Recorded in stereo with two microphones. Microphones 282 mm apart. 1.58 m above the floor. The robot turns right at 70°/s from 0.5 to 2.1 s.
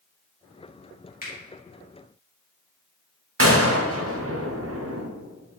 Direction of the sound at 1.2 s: 30° left (ahead or behind).